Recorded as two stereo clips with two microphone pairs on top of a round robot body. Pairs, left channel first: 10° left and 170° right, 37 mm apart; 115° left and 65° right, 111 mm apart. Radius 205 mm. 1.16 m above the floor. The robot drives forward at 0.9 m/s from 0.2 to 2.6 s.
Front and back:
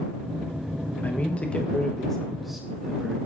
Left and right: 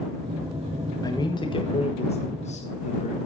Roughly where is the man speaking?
Ahead left.